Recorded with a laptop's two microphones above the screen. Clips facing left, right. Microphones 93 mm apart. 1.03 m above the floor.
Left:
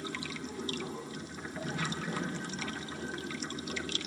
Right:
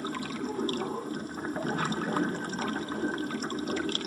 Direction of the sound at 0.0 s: 45° right (ahead or behind).